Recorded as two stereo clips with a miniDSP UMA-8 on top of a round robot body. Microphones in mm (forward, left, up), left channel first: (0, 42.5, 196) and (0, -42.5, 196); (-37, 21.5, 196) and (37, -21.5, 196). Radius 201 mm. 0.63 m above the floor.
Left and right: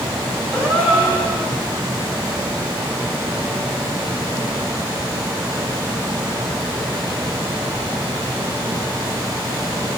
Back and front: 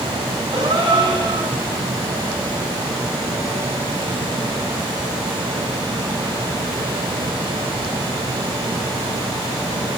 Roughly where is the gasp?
Ahead.